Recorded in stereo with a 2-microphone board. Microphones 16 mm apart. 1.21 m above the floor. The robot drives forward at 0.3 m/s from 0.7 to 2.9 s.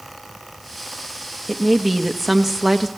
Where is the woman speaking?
5° right (ahead or behind), 1.5 m; by 2.9 s 10° right (ahead or behind), 1.1 m.